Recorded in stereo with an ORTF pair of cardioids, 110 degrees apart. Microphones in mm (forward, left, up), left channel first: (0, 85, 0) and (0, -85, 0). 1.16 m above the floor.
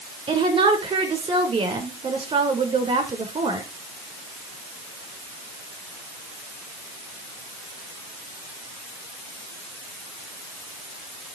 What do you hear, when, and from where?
0.3 s a woman speaking: 30° right, 3.5 m